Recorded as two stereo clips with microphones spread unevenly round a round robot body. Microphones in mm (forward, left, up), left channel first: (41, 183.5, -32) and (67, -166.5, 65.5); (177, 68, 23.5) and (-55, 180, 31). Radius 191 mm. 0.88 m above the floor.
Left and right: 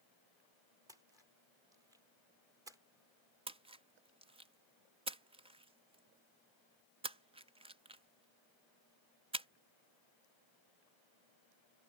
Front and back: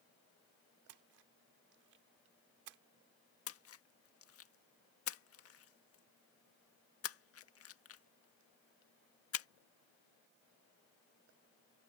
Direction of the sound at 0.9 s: 170° right.